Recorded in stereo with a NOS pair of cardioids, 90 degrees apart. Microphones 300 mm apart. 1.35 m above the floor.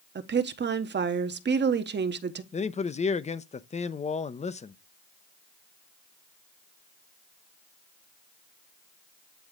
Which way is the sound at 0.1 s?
35° right.